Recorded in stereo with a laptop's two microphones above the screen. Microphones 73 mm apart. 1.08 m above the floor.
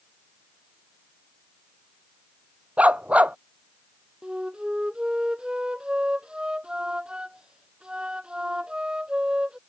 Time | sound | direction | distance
2.8 | a dog barking | 20° right (ahead or behind) | ?
4.2 | a flute | 10° right (ahead or behind) | ?